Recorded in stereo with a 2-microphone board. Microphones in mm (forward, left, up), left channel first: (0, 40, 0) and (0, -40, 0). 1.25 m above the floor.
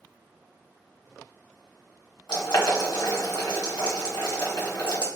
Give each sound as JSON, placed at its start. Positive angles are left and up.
{"t": 2.3, "sound": "boiling", "side_deg": 70, "distance_m": 1.4}